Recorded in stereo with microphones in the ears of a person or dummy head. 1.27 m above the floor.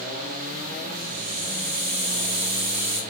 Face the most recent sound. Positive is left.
turn(degrees=-65)  # may be behind; listen again after turning